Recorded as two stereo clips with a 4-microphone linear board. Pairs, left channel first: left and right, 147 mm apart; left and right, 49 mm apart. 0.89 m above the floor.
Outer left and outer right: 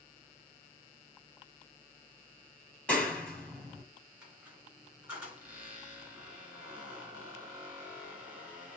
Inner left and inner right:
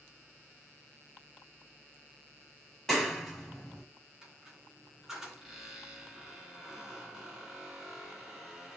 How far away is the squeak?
About 2.5 m.